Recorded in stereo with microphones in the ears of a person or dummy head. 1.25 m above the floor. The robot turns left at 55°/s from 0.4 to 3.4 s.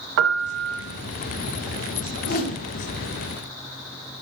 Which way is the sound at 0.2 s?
65° right (ahead or behind).